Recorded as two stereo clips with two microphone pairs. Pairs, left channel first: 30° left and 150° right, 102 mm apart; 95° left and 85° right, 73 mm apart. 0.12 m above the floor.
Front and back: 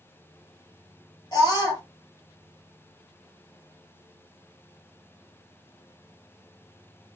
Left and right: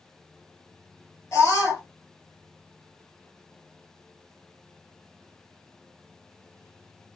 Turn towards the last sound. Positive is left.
turn(degrees=55)